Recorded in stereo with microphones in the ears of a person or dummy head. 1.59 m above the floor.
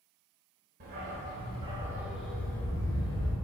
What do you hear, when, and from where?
0.8 s a dog barking: 50° right (ahead or behind), 2.5 m; by 3.4 s 30° left (ahead or behind), 3 m